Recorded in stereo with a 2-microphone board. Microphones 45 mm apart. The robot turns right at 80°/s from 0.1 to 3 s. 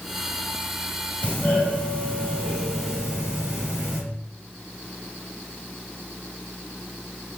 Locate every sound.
1.2 s a doorbell: 25° left (ahead or behind), 1.7 m; by 4.0 s 15° right (ahead or behind), 1.7 m